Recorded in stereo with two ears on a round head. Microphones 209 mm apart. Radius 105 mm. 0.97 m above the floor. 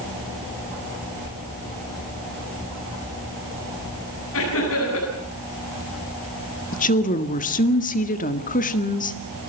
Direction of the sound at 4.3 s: 65° left (ahead or behind).